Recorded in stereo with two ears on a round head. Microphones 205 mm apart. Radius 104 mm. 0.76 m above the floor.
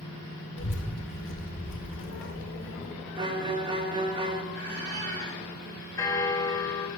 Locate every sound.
0.6 s a child speaking: 60° left (ahead or behind), 1.8 m
3.2 s a violin: 20° right (ahead or behind), 0.7 m
4.5 s a squeak: 45° right (ahead or behind), 2.5 m
6.0 s a bell: 15° left (ahead or behind), 1.1 m